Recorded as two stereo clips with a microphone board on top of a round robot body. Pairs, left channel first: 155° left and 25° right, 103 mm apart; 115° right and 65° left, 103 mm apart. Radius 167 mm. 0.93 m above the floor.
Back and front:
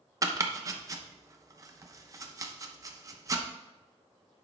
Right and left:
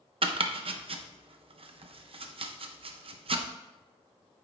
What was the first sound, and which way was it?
Chopping, 35° left.